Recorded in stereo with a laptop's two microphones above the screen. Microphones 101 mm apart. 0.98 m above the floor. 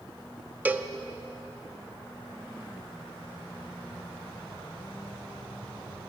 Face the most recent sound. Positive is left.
turn(degrees=-20)  # may be behind; listen again after turning